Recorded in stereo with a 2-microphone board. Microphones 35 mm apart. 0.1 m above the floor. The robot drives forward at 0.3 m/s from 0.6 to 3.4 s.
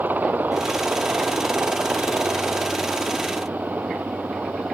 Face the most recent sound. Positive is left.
turn(degrees=-60)  # may be behind; listen again after turning